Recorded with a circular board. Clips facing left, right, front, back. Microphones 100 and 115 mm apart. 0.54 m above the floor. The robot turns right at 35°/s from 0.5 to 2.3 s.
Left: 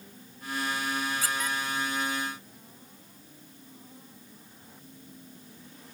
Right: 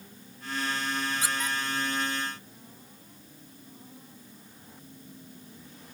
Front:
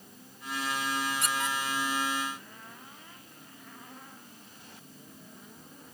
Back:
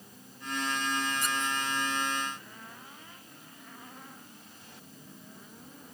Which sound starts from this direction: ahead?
A squeak, at 1.2 s.